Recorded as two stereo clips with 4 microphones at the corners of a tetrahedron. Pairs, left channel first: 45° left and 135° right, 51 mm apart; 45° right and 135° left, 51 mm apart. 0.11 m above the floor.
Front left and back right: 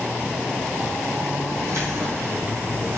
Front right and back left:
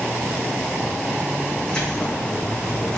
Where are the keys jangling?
120° right, 3.5 m.